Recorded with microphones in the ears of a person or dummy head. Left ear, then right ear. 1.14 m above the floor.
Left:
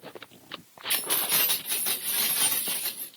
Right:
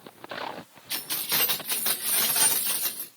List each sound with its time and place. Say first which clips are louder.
0.9 s keys jangling: left 2 dB; 20° left (ahead or behind), 0.5 m; by 3.1 s 50° right (ahead or behind), 1.3 m